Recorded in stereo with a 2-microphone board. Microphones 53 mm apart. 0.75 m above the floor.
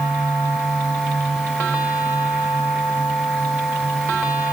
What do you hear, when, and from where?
Only background noise.